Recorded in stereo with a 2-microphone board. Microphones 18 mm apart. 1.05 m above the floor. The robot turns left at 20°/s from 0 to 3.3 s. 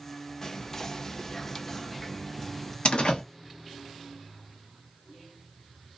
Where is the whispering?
70° left, 0.5 m; by 2.8 s 25° left, 0.5 m.